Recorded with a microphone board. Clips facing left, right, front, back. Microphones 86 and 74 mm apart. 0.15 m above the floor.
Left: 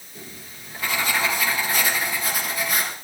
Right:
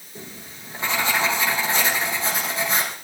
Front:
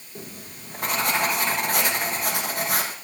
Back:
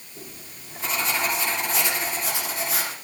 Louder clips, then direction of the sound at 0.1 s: Right 2 dB, front 4 dB; 30° right.